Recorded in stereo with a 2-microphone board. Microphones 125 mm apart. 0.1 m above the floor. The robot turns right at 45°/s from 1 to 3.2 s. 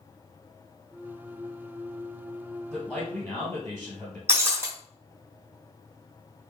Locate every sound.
2.7 s a man speaking: 10° right (ahead or behind), 2.0 m; by 4.2 s 5° left (ahead or behind), 2.0 m
4.3 s breaking glass: 20° right (ahead or behind), 1.3 m